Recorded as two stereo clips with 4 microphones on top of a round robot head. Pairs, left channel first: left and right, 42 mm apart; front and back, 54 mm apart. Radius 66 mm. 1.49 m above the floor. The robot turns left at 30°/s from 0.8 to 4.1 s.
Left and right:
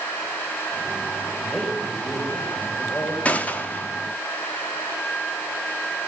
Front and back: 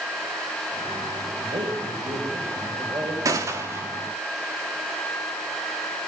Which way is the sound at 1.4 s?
170° right.